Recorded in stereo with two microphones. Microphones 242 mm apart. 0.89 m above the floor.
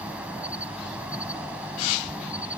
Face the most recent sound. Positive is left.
turn(degrees=-5)  # may be behind; listen again after turning